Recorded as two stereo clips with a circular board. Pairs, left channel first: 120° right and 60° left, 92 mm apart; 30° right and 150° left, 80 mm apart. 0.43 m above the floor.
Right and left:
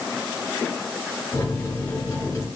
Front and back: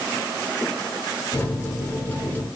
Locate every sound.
1.3 s a microwave: 80° right, 1.2 m